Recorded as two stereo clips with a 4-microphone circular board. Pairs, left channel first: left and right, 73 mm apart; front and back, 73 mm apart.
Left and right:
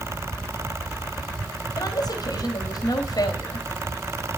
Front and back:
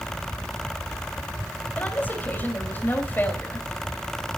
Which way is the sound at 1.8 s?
65° left.